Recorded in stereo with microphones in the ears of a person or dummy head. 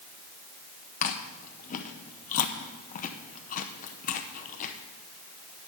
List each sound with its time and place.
1.0 s chewing: 35° left (ahead or behind), 0.7 m